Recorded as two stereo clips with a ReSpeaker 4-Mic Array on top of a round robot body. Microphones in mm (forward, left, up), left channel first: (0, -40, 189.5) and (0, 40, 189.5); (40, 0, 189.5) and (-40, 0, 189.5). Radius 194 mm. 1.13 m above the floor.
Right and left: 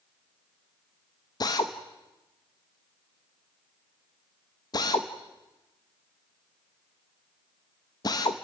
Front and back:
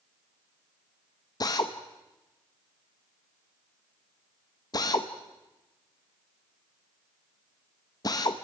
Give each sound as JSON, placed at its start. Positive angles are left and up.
{"t": 1.4, "sound": "a drill", "azimuth_deg": -45, "distance_m": 0.7}